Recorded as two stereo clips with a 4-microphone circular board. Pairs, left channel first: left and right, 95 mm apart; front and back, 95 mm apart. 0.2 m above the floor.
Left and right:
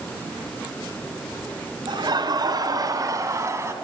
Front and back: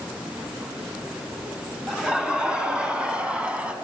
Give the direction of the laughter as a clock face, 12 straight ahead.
3 o'clock.